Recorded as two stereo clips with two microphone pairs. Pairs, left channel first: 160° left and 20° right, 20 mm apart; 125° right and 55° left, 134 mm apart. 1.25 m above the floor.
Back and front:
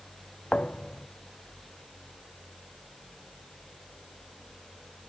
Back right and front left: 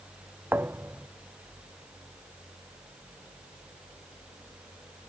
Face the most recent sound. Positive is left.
turn(degrees=130)